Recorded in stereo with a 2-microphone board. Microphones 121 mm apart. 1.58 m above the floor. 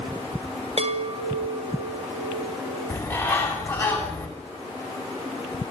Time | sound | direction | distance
0.8 | a chime | 60° right (ahead or behind) | 2 m
2.9 | a bird | 15° left (ahead or behind) | 9 m